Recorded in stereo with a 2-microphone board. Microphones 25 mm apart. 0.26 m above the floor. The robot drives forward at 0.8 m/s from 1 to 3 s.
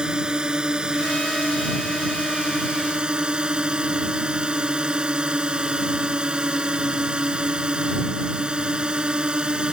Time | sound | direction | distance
0.0 | a drone | 35° right (ahead or behind) | ?